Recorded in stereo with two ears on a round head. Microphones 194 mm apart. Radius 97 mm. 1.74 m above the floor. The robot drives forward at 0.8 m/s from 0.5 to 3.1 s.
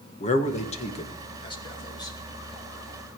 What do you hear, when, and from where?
0.2 s a man speaking: 35° left (ahead or behind), 1.7 m; by 2.2 s 20° left (ahead or behind), 3 m